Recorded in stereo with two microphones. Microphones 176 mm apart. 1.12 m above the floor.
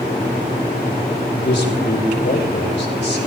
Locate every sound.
1.3 s a man speaking: 85° left, 6 m